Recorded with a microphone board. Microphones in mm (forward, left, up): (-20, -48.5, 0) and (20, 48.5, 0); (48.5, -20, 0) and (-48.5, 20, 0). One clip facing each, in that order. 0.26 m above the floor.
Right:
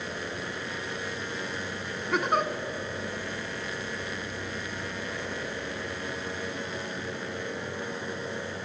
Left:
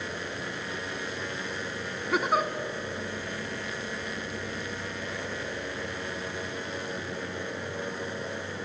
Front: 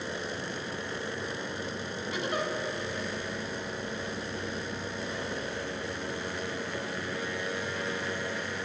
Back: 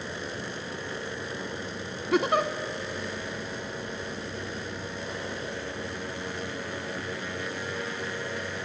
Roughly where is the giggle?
Behind left.